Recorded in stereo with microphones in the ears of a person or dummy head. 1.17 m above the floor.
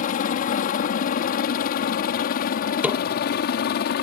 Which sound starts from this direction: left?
A helicopter, at 0.0 s.